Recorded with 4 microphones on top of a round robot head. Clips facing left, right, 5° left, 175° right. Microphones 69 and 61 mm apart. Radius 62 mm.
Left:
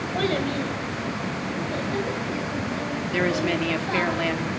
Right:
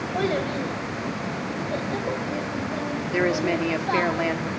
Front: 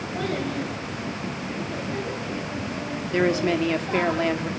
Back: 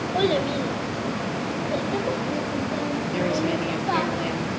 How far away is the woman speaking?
About 1.8 m.